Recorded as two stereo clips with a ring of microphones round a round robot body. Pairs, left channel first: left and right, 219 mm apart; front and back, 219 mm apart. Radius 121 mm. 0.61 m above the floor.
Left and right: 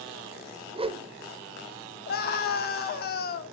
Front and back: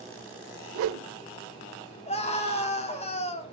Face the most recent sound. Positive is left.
turn(degrees=55)